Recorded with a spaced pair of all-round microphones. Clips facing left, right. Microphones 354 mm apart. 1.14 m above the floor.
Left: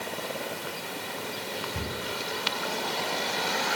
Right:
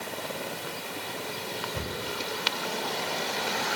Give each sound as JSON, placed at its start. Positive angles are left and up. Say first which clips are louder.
{"t": 1.7, "sound": "a cupboard door", "louder": "even", "side_deg": 30, "distance_m": 5.0}